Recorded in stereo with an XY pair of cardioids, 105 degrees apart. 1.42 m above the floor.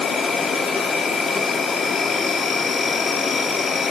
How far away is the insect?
About 1.1 m.